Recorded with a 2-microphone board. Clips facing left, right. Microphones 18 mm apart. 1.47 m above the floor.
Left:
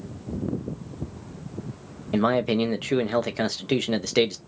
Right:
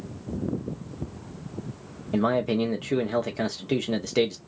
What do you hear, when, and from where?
2.1 s a man speaking: 35° left (ahead or behind), 0.5 m